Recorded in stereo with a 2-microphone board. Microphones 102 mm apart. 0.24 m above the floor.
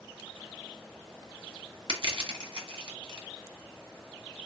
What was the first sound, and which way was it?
Crushing, 55° right (ahead or behind).